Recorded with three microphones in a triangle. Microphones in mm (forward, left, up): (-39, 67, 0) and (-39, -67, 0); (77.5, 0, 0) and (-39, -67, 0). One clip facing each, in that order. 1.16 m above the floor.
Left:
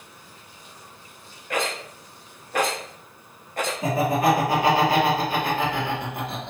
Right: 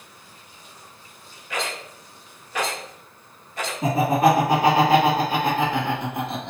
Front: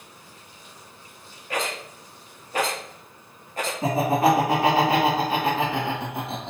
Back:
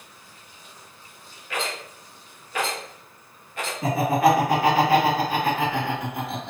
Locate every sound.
1.5 s a rattle: 70° left, 0.8 m
3.8 s laughter: 35° right, 2.0 m